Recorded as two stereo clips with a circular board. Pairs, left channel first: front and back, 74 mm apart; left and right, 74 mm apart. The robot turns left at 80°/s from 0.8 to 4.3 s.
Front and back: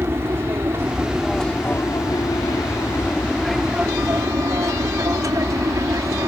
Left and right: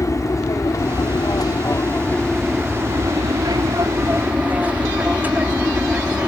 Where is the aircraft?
125° left; by 6.3 s 155° right.